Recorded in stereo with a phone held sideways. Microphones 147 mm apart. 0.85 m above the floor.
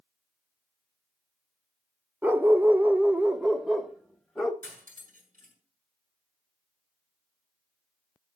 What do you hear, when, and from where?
2.2 s a dog barking: 15° right (ahead or behind), 0.6 m; by 4.5 s centre (ahead or behind), 1.2 m
4.6 s cutlery clinking: 85° right, 6 m